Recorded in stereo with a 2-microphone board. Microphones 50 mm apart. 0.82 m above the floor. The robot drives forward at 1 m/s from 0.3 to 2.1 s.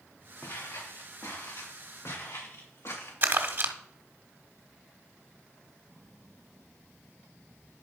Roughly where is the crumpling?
Right.